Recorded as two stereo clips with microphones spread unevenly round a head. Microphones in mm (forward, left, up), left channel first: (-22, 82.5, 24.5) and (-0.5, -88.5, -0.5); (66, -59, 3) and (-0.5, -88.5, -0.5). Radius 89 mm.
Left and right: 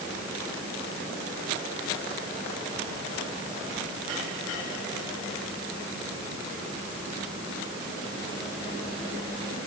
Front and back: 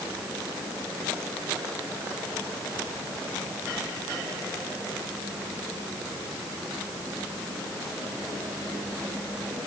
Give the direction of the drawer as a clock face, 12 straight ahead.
I don't hear a drawer.